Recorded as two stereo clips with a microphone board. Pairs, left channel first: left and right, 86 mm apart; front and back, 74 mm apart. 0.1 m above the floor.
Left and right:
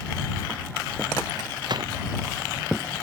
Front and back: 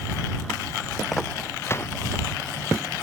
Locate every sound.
1.6 s a gunshot: 55° right